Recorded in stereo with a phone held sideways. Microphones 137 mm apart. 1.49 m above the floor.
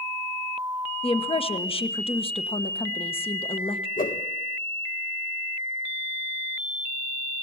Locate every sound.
1.0 s a woman speaking: 45° left (ahead or behind), 1.3 m
4.0 s a whoosh: 80° left, 1.2 m